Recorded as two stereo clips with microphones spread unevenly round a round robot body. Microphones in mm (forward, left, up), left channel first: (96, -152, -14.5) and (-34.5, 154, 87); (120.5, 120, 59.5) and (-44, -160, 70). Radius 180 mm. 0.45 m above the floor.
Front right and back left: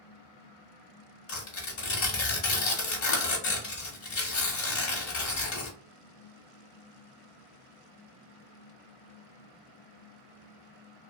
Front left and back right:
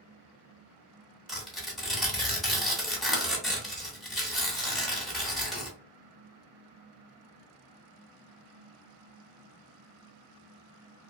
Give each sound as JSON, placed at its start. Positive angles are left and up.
{"t": 1.3, "sound": "tearing paper", "azimuth_deg": -30, "distance_m": 1.1}